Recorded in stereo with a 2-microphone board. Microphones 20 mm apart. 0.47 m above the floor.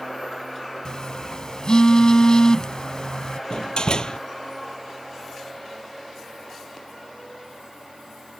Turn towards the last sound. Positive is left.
turn(degrees=45)  # may be behind; listen again after turning